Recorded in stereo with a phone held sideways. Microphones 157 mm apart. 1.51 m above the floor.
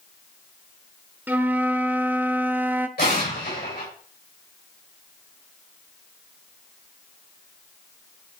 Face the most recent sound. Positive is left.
turn(degrees=85)